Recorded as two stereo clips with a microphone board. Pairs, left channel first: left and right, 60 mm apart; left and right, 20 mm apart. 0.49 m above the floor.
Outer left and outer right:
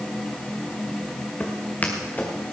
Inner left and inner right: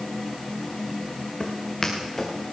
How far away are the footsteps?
About 3 m.